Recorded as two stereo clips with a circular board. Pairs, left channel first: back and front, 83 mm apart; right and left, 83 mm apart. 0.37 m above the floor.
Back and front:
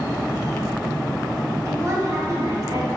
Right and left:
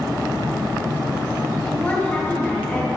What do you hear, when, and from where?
1.6 s a woman speaking: 35° right, 2 m